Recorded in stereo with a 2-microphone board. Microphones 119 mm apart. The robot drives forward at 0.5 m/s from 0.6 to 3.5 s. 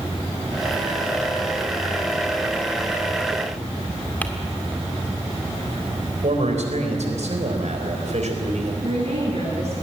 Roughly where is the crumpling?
Centre.